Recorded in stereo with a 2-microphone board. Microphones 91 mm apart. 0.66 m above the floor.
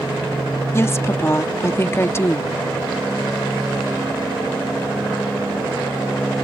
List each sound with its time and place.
0.7 s a woman speaking: 30° left (ahead or behind)